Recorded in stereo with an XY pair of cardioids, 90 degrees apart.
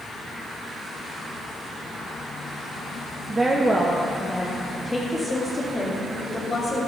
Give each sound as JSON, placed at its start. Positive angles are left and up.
{"t": 3.3, "sound": "a woman speaking", "azimuth_deg": -30, "distance_m": 1.7}